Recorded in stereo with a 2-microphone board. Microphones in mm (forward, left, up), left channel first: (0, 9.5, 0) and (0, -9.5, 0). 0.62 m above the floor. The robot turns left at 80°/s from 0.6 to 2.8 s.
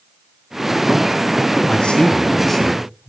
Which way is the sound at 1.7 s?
85° left.